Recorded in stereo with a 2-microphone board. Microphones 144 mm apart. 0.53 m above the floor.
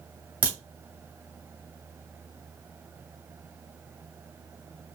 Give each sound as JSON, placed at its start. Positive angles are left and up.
{"t": 0.4, "sound": "a crack", "side_deg": -10, "distance_m": 2.0}